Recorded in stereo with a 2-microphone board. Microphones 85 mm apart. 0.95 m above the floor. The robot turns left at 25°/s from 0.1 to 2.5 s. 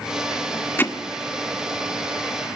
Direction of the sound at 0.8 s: 25° left (ahead or behind).